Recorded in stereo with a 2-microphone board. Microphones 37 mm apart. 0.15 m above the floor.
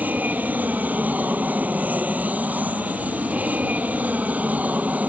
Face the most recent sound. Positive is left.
turn(degrees=-40)  # may be behind; listen again after turning